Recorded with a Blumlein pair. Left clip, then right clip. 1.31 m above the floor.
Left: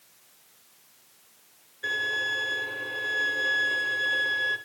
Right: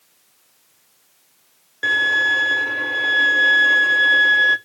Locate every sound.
1.8 s a violin: 50° right, 1.5 m